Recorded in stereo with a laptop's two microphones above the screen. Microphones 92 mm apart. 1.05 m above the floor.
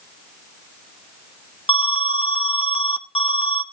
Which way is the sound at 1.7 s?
85° left.